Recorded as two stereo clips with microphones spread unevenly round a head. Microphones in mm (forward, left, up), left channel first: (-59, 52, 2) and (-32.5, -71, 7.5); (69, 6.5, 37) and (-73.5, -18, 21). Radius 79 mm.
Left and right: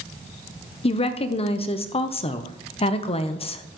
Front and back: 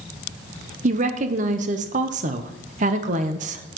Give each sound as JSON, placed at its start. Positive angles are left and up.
{"t": 0.8, "sound": "a woman speaking", "azimuth_deg": 145, "distance_m": 0.9}